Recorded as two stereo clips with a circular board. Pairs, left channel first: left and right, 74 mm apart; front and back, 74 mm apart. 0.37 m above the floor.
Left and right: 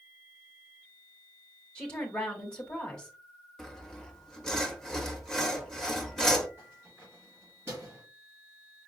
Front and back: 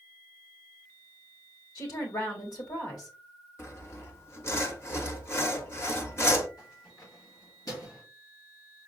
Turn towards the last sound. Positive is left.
turn(degrees=-35)